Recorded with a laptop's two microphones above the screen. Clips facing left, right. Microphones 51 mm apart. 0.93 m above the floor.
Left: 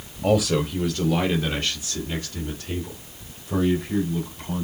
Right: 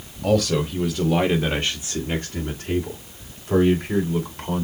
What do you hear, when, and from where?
0.2 s a man speaking: 10° left (ahead or behind), 1.2 m; by 4.6 s 70° right (ahead or behind), 3 m